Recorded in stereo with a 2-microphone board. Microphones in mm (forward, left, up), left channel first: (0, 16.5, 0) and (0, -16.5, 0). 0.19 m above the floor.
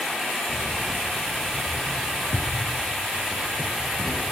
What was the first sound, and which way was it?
Keys jangling, 45° left (ahead or behind).